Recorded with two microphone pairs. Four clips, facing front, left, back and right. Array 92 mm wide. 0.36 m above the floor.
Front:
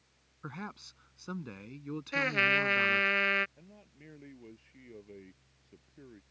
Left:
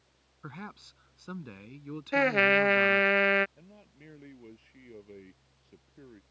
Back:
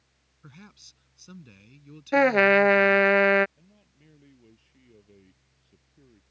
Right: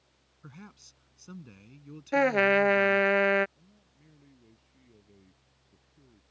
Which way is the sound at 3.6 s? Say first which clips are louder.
Left 8 dB, front 5 dB; 65° left.